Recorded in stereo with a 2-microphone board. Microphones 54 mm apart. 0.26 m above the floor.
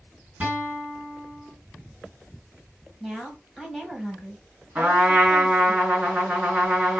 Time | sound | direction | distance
0.4 | a guitar | 25° right (ahead or behind) | 2.5 m
3.0 | a woman speaking | 5° right (ahead or behind) | 1.2 m
4.8 | a trumpet | 35° right (ahead or behind) | 2.5 m